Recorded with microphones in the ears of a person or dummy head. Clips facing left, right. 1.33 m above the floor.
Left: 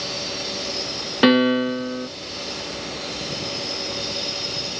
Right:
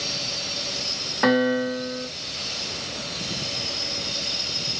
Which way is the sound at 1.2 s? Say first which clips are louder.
Left 4 dB; 45° left (ahead or behind).